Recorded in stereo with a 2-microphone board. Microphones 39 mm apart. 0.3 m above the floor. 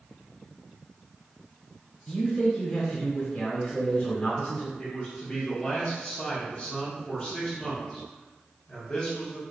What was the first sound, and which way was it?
A man speaking, 20° left (ahead or behind).